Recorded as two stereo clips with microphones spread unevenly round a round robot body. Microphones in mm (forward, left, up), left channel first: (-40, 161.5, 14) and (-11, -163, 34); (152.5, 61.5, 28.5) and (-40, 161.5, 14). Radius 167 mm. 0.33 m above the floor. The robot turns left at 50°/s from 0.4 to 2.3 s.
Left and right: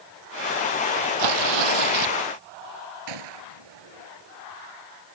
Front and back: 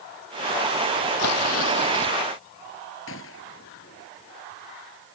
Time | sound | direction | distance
1.2 | tearing paper | 60° right | ?
3.1 | a gunshot | 80° right | ?